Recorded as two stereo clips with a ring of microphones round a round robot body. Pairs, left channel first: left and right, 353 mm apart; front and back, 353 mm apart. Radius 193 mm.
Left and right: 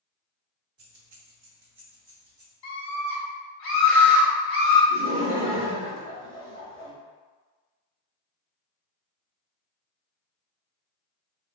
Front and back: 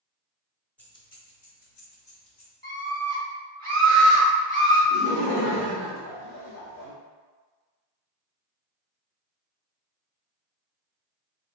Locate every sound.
0.8 s keys jangling: 85° right, 0.9 m; by 2.5 s 20° right, 1.7 m
2.6 s a scream: 70° left, 1.5 m
4.9 s laughter: 20° right, 1.4 m